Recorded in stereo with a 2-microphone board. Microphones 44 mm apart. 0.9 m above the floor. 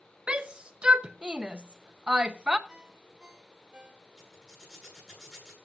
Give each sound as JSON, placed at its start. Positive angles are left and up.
{"t": 0.3, "sound": "a shout", "side_deg": -20, "distance_m": 1.1}
{"t": 2.7, "sound": "a ringtone", "side_deg": -20, "distance_m": 1.9}
{"t": 4.2, "sound": "a zipper", "side_deg": 5, "distance_m": 9.5}